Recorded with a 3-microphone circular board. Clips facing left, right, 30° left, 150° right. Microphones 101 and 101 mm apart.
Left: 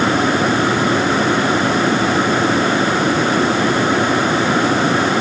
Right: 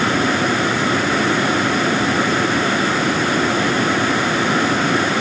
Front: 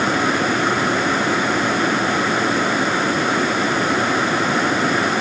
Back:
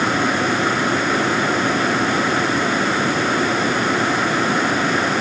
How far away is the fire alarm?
No fire alarm in this recording.